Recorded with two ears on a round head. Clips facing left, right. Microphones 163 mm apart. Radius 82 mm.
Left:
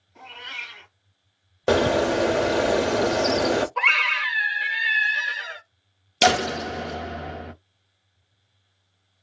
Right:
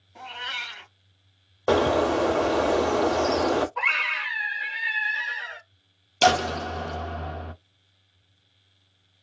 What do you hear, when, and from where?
0.1 s a cat meowing: 65° right (ahead or behind), 1.2 m
1.7 s a bird: 20° left (ahead or behind), 0.5 m
3.8 s a scream: 50° left (ahead or behind), 1.0 m
6.2 s a door slam: 20° left (ahead or behind), 0.6 m